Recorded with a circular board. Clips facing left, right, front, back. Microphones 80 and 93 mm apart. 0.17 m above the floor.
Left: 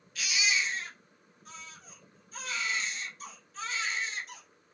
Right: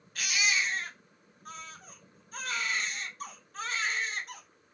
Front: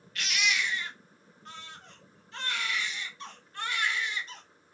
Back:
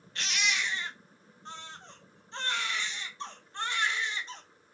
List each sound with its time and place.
0.1 s a baby crying: 125° right, 0.8 m